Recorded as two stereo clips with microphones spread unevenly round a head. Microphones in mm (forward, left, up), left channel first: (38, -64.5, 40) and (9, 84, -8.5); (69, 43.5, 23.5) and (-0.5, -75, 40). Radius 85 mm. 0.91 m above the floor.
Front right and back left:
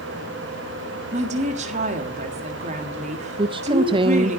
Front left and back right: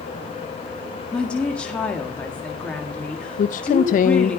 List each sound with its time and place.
1.1 s a woman speaking: 140° left, 1.8 m
3.4 s a woman speaking: 55° left, 0.5 m